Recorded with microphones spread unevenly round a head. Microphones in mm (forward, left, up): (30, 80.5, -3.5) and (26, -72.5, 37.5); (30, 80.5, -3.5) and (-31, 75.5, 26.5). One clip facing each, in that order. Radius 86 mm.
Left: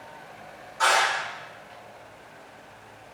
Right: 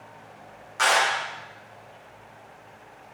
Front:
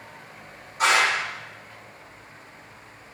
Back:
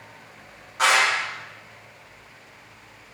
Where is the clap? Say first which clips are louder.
Even, back 1 dB; 115° right, 0.9 m.